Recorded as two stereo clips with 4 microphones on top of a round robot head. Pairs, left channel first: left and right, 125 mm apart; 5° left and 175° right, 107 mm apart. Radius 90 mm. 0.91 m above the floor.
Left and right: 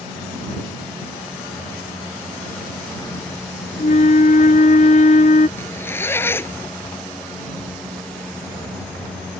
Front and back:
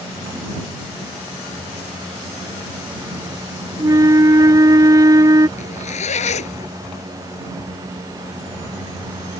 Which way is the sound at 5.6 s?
20° left.